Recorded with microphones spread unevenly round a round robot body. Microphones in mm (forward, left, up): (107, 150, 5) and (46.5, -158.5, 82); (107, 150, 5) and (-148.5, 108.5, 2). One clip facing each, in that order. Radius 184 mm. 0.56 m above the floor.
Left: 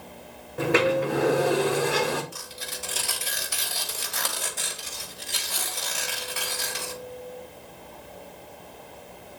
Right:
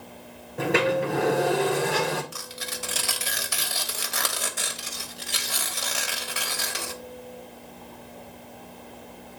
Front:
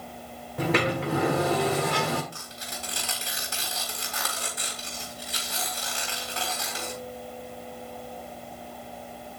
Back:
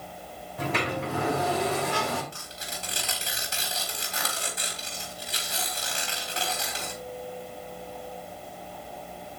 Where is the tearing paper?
105° right, 1.2 m.